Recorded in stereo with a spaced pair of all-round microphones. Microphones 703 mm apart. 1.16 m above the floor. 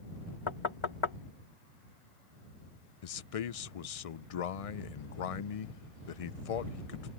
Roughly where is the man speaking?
Left.